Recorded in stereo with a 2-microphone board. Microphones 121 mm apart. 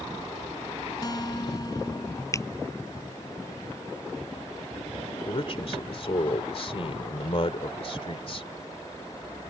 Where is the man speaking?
50° left (ahead or behind).